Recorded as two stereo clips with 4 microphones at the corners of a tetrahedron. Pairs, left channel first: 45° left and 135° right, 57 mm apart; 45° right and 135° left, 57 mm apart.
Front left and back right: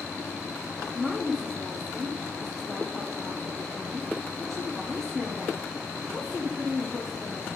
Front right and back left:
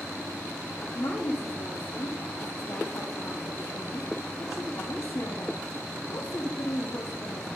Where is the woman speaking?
50° right, 0.8 m.